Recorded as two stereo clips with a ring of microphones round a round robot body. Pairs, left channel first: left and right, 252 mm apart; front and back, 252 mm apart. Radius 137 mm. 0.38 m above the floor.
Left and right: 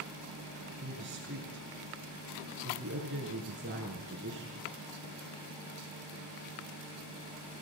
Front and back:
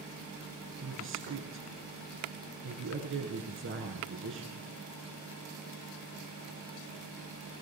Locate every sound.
0.8 s a man speaking: 140° right, 6.5 m